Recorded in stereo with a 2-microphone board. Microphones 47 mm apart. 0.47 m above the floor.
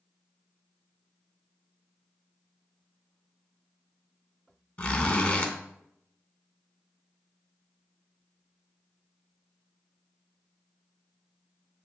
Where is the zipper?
35° left (ahead or behind), 0.7 m.